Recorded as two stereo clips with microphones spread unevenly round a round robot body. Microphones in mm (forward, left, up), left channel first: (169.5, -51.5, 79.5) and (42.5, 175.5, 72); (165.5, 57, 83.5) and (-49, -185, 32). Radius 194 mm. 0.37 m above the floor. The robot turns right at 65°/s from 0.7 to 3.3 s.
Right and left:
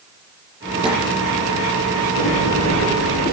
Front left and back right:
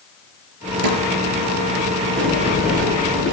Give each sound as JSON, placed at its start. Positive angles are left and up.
{"t": 0.8, "sound": "a snare drum", "azimuth_deg": -165, "distance_m": 4.5}
{"t": 2.2, "sound": "a sliding door", "azimuth_deg": -80, "distance_m": 6.5}